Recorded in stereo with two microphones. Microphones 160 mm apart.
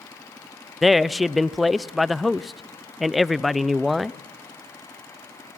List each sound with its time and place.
0.8 s a man speaking: centre (ahead or behind), 0.6 m